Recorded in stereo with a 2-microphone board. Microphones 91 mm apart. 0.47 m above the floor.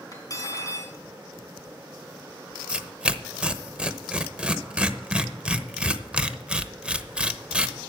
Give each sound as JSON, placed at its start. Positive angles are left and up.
{"t": 0.1, "sound": "cutlery clinking", "side_deg": 40, "distance_m": 3.0}
{"t": 2.7, "sound": "tearing paper", "side_deg": -10, "distance_m": 0.7}